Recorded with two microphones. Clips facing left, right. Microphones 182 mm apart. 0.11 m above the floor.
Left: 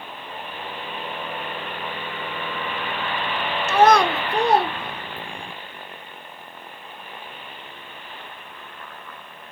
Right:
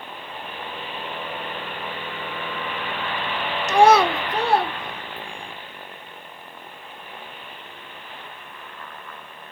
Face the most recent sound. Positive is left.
turn(degrees=40)  # may be behind; listen again after turning